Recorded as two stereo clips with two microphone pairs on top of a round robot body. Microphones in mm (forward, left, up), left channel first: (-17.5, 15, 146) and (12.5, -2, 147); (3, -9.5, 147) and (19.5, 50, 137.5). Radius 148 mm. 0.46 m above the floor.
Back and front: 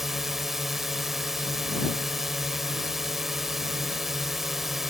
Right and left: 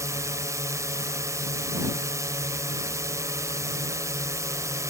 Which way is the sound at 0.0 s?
50° left.